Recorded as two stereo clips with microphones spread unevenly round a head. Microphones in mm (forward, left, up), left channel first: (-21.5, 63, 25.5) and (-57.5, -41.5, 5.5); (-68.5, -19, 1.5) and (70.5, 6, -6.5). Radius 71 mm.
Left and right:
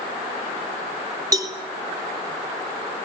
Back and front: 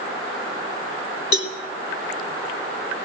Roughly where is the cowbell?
Behind.